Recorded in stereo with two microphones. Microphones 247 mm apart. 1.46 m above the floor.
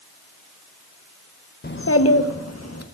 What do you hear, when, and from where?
1.6 s a child speaking: 40° left (ahead or behind), 0.8 m; by 2.9 s 75° left (ahead or behind), 1.9 m